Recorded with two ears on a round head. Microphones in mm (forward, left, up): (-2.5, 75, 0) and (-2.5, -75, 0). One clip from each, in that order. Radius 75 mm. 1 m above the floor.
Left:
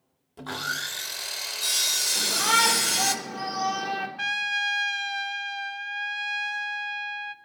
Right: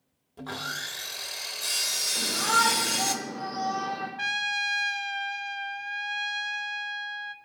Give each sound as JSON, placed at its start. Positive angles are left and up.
{"t": 0.4, "sound": "sawing", "side_deg": 15, "distance_m": 0.7}
{"t": 2.1, "sound": "a shout", "side_deg": 80, "distance_m": 4.0}
{"t": 4.2, "sound": "a trumpet", "side_deg": 10, "distance_m": 0.6}